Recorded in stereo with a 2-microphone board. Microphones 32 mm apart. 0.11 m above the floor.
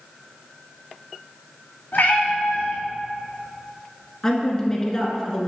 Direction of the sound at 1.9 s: 65° left (ahead or behind).